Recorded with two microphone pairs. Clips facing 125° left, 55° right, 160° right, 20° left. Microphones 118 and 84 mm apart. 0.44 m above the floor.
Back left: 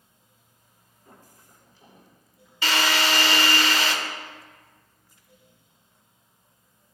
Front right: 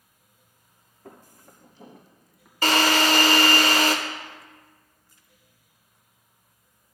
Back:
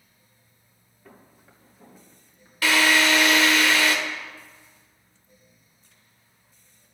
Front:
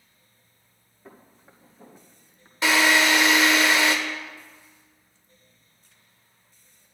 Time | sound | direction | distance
1.1 | footsteps | 45° right | 3 m
2.6 | a drill | 35° right | 1.0 m